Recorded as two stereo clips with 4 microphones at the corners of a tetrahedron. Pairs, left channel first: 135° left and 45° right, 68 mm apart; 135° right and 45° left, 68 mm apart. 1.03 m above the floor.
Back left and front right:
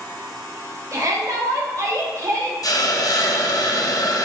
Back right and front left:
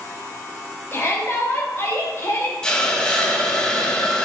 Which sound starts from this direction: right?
A shout, at 0.9 s.